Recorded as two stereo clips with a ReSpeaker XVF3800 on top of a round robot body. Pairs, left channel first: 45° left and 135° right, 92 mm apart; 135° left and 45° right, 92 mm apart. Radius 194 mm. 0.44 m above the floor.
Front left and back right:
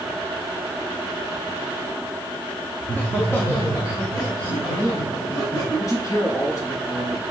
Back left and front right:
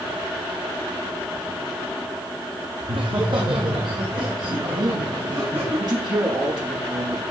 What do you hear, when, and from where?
2.8 s laughter: 30° right, 1.5 m; by 5.8 s straight ahead, 3.5 m
4.8 s a man speaking: 5° right, 6.5 m